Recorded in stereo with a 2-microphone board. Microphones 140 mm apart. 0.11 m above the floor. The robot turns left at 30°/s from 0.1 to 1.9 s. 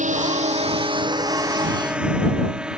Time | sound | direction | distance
0.0 | a drone | 60° right (ahead or behind) | ?